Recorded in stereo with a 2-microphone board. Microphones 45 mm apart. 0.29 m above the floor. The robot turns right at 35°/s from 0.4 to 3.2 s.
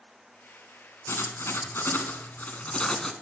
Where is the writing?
95° left, 0.7 m; by 3.1 s 165° left, 0.7 m.